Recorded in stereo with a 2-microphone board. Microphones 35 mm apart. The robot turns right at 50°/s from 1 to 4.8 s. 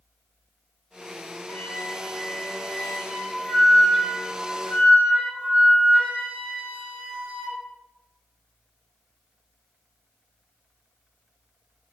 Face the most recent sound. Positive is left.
turn(degrees=-135)